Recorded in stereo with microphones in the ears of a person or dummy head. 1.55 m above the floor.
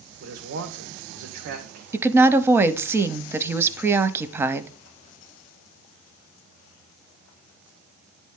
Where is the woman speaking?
15° right (ahead or behind), 0.6 m.